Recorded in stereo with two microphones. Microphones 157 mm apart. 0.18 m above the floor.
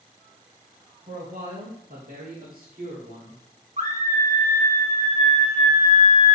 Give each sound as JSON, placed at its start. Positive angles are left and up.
{"t": 1.1, "sound": "a man speaking", "side_deg": -50, "distance_m": 2.0}
{"t": 3.8, "sound": "a scream", "side_deg": -50, "distance_m": 1.8}